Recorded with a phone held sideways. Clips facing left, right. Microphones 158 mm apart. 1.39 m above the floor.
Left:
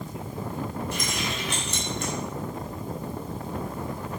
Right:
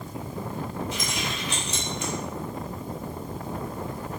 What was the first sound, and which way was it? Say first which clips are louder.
Keys jangling: left 1 dB; 65° left (ahead or behind).